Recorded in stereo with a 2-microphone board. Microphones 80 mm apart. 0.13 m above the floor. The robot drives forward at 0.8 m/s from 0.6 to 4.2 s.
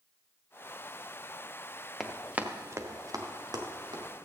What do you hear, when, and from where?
2.0 s running footsteps: centre (ahead or behind), 1.4 m; by 4.2 s 70° right (ahead or behind), 3 m